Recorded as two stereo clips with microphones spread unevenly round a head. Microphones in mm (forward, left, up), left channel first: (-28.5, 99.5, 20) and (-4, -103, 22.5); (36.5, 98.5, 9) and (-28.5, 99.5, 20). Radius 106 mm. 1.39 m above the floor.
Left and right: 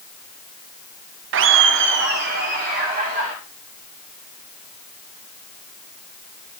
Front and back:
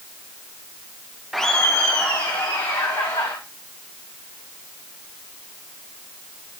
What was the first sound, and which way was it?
Laughter, 90° right.